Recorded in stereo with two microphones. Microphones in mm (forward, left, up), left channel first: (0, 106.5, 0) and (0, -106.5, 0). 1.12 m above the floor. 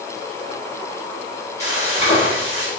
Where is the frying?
30° left (ahead or behind), 7.5 m.